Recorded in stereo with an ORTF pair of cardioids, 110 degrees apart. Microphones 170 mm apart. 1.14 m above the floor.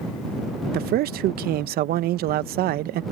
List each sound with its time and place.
0.7 s a man speaking: 65° right